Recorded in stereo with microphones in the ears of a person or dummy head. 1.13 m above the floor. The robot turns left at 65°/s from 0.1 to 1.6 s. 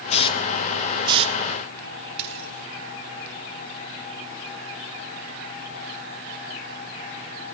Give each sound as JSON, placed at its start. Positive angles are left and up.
{"t": 0.1, "sound": "a hiss", "side_deg": 50, "distance_m": 1.0}
{"t": 2.2, "sound": "a dropped coin", "side_deg": -25, "distance_m": 6.0}